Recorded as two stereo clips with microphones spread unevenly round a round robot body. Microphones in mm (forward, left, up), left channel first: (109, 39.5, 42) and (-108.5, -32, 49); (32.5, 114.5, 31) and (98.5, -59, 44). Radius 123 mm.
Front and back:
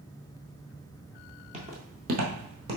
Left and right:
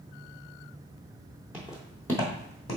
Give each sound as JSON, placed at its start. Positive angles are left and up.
{"t": 1.5, "sound": "footsteps", "azimuth_deg": -135, "distance_m": 1.0}